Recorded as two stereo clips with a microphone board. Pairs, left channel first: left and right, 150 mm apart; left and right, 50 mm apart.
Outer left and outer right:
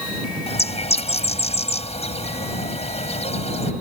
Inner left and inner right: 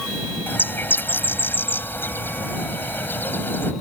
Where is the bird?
45° left (ahead or behind).